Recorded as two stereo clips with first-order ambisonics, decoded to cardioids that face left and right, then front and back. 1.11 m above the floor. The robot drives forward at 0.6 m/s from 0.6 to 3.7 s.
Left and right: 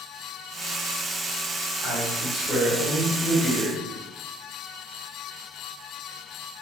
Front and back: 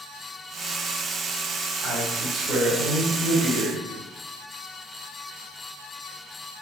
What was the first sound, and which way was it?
A man speaking, 150° right.